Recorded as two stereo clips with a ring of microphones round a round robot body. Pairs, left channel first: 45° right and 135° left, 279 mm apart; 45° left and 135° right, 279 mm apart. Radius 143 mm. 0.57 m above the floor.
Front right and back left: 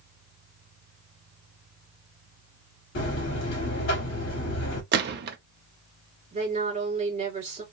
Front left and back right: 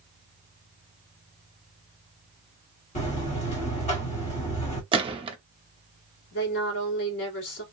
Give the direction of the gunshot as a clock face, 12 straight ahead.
7 o'clock.